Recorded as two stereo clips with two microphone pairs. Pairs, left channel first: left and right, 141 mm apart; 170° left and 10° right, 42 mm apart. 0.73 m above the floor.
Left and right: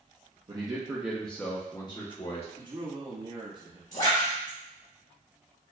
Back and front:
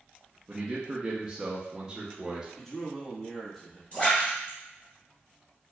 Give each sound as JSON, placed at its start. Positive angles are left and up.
{"t": 0.5, "sound": "a man speaking", "azimuth_deg": -70, "distance_m": 0.8}
{"t": 2.6, "sound": "a man speaking", "azimuth_deg": -115, "distance_m": 1.0}
{"t": 3.9, "sound": "a splash", "azimuth_deg": 110, "distance_m": 2.0}